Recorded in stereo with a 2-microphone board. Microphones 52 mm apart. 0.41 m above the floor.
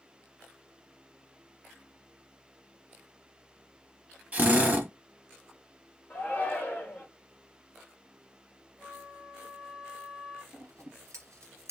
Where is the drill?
30° right (ahead or behind), 0.9 m.